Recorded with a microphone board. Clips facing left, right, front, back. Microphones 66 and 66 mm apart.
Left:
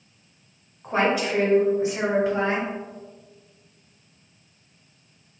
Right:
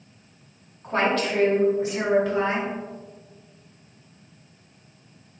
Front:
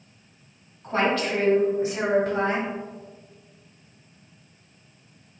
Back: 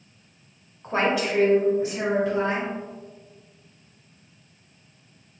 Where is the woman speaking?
165° left, 1.0 m; by 2.7 s 30° left, 1.6 m.